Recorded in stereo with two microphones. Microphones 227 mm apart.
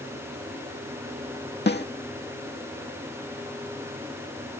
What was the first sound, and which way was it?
A snare drum, 50° left (ahead or behind).